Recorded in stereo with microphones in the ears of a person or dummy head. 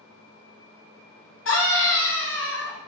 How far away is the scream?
About 1.0 m.